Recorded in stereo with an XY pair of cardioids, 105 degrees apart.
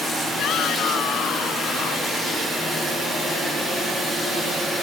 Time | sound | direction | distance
0.4 | a shout | 70° left | ?